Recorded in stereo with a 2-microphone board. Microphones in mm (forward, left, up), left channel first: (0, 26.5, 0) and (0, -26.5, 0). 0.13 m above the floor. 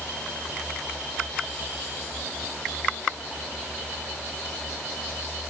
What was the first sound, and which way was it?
Only background noise.